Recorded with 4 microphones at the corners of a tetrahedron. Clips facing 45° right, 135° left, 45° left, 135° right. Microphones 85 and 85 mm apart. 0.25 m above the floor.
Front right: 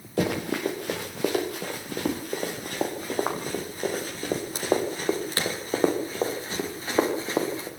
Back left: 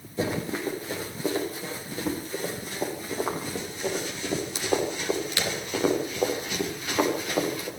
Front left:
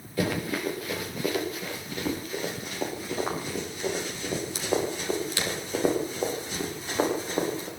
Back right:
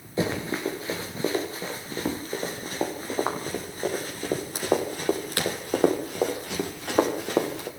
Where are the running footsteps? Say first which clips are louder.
Front right 3 dB, back right 1 dB; 70° right, 7 m; by 7.7 s 105° right, 7 m.